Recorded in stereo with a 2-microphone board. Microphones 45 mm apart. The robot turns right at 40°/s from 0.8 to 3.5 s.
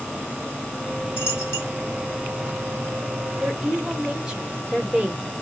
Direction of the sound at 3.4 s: 15° right (ahead or behind).